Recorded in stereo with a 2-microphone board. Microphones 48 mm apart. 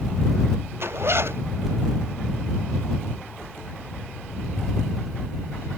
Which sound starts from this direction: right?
A zipper, at 0.8 s.